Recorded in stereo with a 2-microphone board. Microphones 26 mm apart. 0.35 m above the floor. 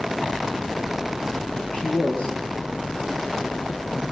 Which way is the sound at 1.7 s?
40° left (ahead or behind).